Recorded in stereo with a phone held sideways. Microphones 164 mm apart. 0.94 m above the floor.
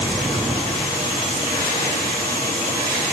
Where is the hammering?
I don't hear hammering.